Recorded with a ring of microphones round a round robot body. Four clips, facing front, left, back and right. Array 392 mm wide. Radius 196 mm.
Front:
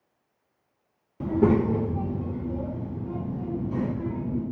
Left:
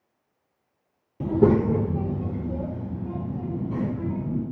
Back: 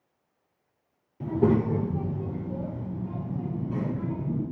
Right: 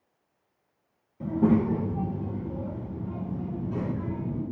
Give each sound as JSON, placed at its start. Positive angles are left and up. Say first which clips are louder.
{"t": 1.2, "sound": "a child speaking", "louder": "left 4 dB, front 2 dB", "azimuth_deg": 70, "distance_m": 0.7}